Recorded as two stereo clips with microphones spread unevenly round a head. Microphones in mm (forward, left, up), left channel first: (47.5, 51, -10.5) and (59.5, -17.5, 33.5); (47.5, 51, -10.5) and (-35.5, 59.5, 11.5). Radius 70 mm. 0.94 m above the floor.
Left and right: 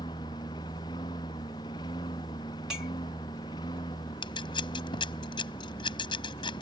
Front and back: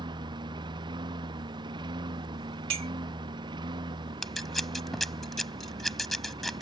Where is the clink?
165° right.